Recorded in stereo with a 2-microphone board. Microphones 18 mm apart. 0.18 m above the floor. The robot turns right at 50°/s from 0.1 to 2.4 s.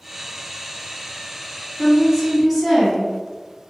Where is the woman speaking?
40° right, 1.2 m; by 3.1 s 10° right, 1.2 m.